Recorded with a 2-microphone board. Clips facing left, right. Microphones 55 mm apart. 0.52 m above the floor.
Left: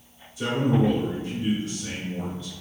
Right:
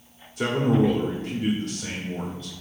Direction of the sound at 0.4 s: 55° right (ahead or behind).